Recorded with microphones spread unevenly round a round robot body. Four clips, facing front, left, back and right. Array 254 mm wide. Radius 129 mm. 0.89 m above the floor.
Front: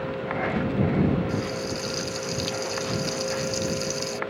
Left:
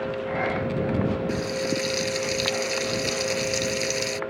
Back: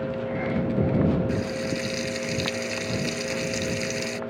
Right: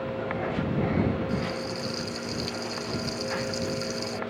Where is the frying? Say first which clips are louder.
Left 4 dB, back 1 dB; 100° left.